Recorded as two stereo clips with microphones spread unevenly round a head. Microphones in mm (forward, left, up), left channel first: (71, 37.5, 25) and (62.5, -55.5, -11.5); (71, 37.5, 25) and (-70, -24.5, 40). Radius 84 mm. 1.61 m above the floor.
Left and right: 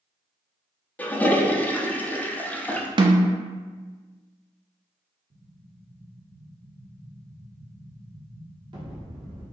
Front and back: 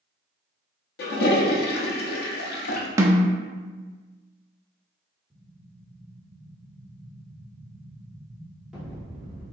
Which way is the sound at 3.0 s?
85° right.